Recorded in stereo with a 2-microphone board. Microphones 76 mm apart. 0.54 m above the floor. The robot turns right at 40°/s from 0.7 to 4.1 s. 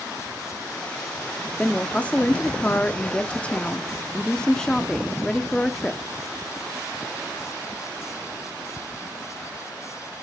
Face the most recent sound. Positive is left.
turn(degrees=10)  # may be behind; listen again after turning